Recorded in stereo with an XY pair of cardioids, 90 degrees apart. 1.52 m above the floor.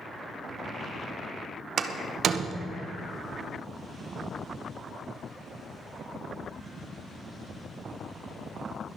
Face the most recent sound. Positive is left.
turn(degrees=-65)